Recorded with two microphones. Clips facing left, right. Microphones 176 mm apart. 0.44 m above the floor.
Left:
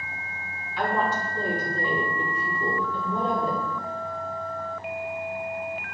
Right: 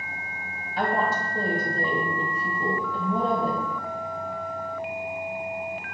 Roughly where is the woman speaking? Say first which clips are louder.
Even; right.